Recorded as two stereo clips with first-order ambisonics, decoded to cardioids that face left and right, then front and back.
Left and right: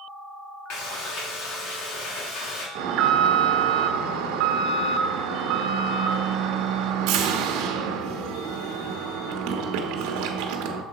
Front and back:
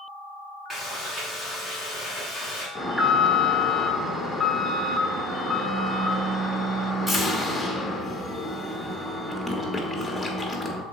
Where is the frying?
105° left, 2.5 m.